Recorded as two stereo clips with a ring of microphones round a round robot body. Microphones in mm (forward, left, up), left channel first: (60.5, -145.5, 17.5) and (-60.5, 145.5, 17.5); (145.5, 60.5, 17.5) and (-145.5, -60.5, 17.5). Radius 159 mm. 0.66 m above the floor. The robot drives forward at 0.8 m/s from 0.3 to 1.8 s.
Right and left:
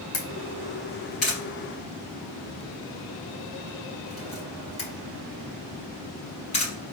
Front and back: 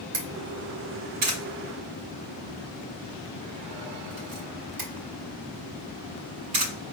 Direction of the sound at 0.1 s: 115° right.